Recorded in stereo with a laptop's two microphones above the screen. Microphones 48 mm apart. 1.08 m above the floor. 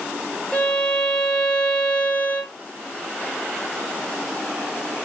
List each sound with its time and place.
0.5 s a violin: 25° left (ahead or behind), 0.6 m